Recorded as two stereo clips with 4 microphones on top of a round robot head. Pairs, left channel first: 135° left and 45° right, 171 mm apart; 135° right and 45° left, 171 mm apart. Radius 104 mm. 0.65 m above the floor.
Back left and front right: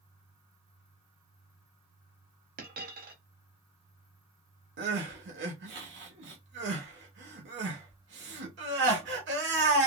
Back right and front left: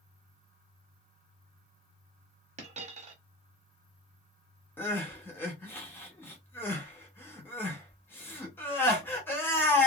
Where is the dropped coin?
5° right, 0.8 m.